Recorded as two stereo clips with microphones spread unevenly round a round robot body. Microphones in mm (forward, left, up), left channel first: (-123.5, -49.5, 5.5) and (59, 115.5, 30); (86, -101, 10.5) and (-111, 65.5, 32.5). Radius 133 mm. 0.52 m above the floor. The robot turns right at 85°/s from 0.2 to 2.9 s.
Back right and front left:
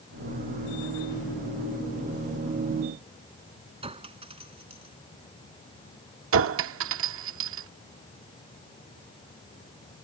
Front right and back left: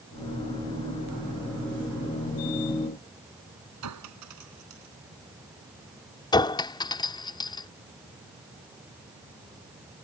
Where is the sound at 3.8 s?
110° left.